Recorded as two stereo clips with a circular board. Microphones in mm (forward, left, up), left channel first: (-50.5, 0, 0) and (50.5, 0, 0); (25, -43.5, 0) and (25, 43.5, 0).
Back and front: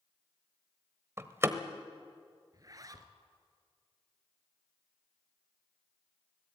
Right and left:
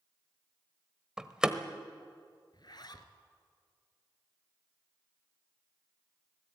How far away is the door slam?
About 1.1 m.